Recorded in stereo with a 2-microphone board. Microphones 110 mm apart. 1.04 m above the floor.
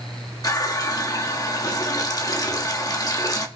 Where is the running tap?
35° left (ahead or behind), 1.3 m.